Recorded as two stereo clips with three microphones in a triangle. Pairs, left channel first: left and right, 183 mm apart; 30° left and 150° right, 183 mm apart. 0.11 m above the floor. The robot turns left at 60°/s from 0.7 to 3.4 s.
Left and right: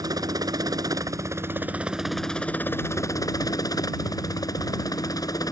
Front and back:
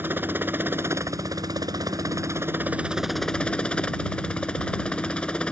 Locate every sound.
0.0 s a helicopter: 95° right; by 5.5 s 105° left